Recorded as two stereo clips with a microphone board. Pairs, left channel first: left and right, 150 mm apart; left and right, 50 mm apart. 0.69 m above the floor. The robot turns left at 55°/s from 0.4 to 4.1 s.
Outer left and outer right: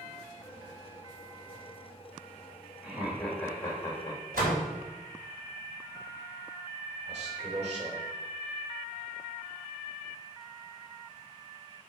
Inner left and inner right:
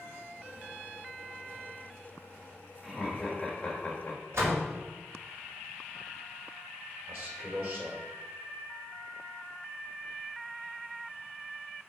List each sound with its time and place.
2.8 s laughter: 165° right, 1.4 m; by 4.2 s 125° left, 1.4 m
4.3 s a door slam: 75° right (ahead or behind), 2.5 m
7.1 s a man speaking: 50° right (ahead or behind), 2 m